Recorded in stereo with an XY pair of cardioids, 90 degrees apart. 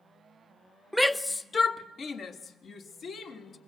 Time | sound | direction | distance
0.9 | a shout | straight ahead | 0.9 m